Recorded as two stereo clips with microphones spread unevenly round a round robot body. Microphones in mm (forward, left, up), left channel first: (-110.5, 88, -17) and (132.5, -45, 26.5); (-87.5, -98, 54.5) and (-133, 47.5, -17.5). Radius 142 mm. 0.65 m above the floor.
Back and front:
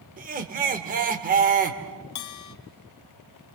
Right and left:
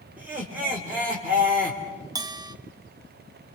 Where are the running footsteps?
I don't hear running footsteps.